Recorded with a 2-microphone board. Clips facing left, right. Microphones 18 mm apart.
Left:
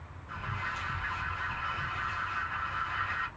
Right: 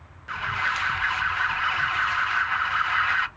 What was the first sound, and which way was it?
An alarm, 45° right (ahead or behind).